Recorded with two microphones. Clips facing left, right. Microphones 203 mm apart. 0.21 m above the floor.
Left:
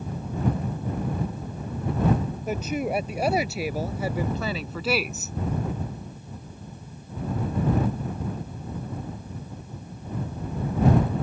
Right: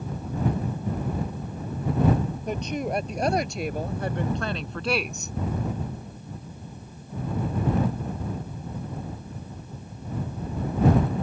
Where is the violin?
No violin in this recording.